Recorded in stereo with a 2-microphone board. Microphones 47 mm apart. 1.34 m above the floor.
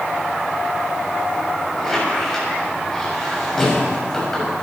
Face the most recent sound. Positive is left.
turn(degrees=5)  # may be behind; listen again after turning